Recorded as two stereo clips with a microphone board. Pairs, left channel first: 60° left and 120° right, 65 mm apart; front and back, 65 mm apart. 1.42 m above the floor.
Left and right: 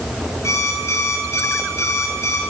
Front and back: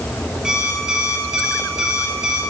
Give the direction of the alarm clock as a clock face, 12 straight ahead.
9 o'clock.